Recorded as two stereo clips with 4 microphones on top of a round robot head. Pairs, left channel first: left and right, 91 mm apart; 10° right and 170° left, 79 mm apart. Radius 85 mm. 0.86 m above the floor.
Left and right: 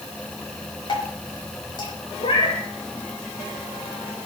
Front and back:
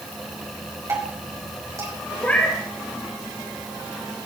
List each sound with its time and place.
0.9 s dripping: 120° left, 5 m
2.2 s a cat meowing: 60° left, 4.5 m